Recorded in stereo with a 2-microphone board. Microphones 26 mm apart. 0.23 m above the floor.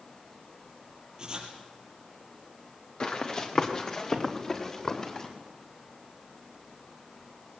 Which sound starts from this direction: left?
Running footsteps, at 3.0 s.